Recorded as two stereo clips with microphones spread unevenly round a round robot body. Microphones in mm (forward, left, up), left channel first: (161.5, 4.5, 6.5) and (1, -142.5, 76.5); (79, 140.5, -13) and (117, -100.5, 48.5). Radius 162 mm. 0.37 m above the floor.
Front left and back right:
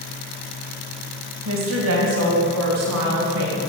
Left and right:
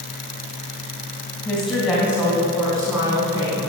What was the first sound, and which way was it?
A woman speaking, straight behind.